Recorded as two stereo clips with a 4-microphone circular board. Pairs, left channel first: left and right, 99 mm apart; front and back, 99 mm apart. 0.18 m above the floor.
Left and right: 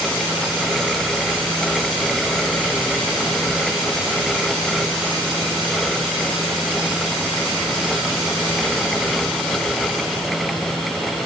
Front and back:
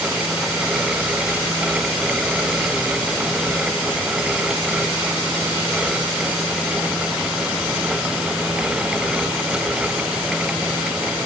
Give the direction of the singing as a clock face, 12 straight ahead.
I don't hear singing.